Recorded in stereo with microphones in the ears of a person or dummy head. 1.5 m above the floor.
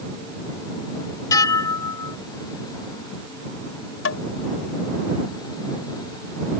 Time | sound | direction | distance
1.3 | dishes clattering | 20° left (ahead or behind) | ?
4.0 | tapping | 90° left | ?